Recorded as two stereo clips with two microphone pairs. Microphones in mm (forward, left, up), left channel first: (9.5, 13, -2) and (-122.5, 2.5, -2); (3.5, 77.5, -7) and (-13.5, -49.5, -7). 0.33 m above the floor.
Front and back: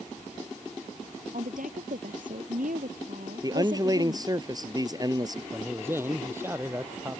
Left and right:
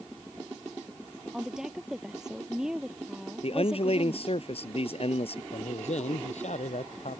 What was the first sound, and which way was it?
A woman speaking, 175° left.